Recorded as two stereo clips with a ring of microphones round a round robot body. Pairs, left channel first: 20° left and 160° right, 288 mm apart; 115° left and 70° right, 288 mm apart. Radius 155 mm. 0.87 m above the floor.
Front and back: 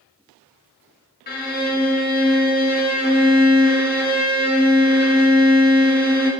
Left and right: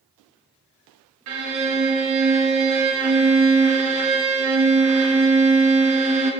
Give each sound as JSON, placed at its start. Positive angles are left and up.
{"t": 1.3, "sound": "a violin", "azimuth_deg": -35, "distance_m": 1.8}